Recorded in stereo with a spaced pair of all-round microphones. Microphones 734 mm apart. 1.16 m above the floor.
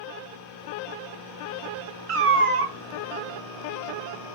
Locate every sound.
2.1 s a cat meowing: 55° right (ahead or behind), 0.5 m